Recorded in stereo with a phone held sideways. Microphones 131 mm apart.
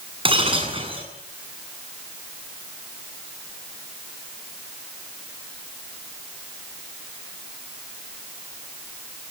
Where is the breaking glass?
45° right (ahead or behind), 8 m.